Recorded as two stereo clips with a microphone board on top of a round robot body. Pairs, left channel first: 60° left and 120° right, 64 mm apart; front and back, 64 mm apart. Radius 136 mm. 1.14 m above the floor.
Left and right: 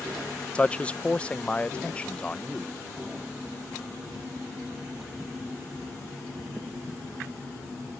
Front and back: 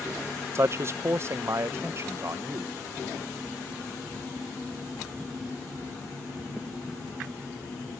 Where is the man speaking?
130° left.